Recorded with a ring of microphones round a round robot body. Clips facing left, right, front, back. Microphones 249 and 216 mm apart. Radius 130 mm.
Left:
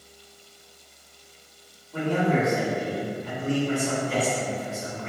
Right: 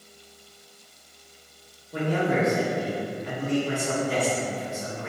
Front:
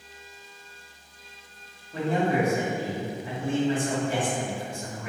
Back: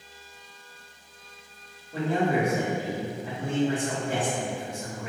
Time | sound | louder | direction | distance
1.9 | a man speaking | left 1 dB, even | 125° right | 1.7 m